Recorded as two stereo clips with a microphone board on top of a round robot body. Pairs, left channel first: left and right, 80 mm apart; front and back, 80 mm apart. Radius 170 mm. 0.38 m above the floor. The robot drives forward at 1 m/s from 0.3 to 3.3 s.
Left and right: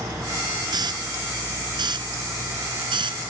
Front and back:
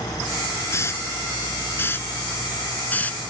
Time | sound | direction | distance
0.7 | a hiss | 60° right | ?